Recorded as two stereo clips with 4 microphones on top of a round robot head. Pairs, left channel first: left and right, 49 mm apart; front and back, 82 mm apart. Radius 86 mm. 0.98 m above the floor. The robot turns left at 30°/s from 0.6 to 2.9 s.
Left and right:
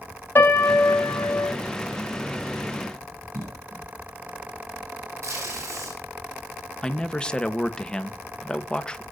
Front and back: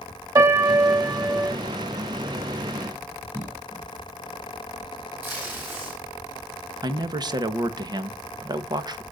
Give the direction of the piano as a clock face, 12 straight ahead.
7 o'clock.